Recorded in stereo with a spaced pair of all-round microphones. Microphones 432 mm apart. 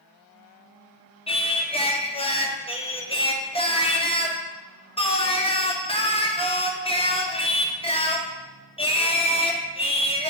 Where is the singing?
15° left (ahead or behind), 0.6 m.